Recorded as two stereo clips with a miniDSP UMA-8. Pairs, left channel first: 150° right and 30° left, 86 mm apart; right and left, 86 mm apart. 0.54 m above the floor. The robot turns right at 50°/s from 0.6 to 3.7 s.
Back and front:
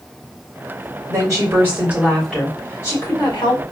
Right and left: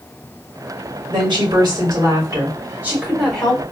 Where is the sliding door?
I don't hear a sliding door.